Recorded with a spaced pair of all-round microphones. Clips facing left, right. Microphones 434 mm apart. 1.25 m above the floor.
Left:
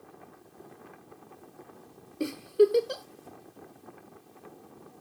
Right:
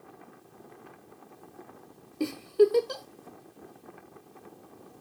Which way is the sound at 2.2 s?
10° right (ahead or behind).